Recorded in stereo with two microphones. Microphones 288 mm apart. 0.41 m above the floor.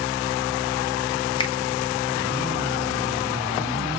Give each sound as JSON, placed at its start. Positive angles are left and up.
{"t": 1.4, "sound": "a finger snap", "side_deg": 15, "distance_m": 0.5}